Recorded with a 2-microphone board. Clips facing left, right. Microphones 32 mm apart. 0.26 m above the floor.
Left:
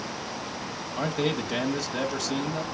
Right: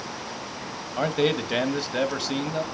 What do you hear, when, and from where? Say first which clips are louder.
1.0 s a man speaking: right 4 dB; 25° right (ahead or behind), 1.3 m